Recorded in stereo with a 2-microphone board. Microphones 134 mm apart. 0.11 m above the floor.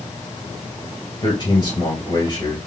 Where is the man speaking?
35° left (ahead or behind), 2 m.